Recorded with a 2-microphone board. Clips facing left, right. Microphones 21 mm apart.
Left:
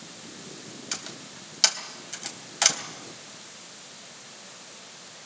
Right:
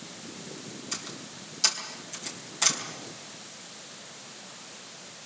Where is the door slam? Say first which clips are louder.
Left 2 dB; 45° left (ahead or behind), 3 m.